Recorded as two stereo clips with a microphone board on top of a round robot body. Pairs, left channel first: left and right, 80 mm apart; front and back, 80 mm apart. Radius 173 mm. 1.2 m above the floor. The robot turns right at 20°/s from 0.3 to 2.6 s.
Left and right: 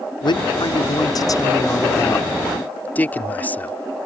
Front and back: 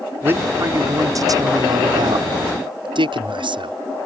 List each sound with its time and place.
0.2 s a man speaking: 115° left; by 3.8 s 160° left